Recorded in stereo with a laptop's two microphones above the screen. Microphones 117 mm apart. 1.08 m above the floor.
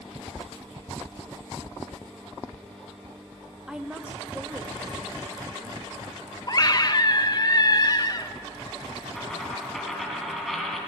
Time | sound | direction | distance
3.7 | a woman speaking | 5° right (ahead or behind) | 0.8 m
6.5 | a scream | 35° left (ahead or behind) | 0.8 m
9.2 | a dropped coin | centre (ahead or behind) | 2.5 m